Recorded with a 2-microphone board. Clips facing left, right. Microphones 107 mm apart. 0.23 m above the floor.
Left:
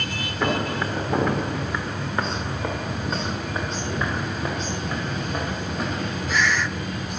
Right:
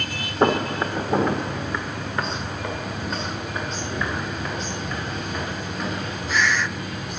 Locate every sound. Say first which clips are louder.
0.4 s footsteps: right 4 dB; 35° right (ahead or behind), 0.9 m; by 5.8 s 40° left (ahead or behind), 4 m